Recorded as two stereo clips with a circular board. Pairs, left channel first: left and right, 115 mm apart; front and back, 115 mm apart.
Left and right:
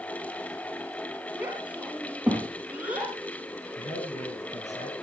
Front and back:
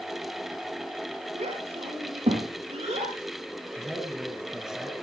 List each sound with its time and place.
1.4 s a child speaking: 170° right, 4.5 m
3.8 s a man speaking: 95° left, 4 m